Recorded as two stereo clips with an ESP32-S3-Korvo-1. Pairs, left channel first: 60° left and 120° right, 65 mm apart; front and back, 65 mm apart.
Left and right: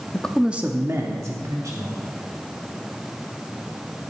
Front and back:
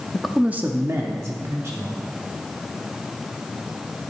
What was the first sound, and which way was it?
A man speaking, 65° left.